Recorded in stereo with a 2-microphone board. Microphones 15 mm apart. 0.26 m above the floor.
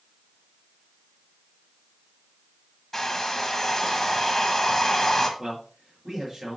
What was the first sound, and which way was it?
A hair dryer, 20° left (ahead or behind).